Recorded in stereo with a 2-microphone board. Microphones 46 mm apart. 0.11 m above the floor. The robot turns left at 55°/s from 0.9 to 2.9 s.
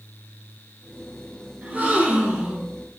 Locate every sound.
1.6 s a gasp: 80° right, 0.9 m; by 2.7 s 140° right, 0.9 m